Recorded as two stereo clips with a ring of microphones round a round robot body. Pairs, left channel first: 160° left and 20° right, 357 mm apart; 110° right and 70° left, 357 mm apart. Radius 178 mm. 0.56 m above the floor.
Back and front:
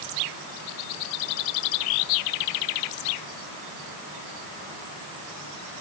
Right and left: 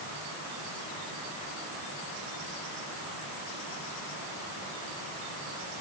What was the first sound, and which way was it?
Only background noise.